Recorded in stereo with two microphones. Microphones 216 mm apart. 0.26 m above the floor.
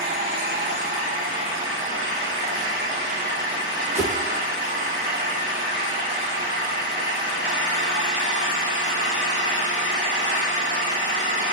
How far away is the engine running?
About 6.5 m.